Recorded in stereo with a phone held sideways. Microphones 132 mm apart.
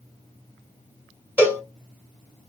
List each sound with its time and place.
1.4 s a cowbell: 15° right (ahead or behind), 1.2 m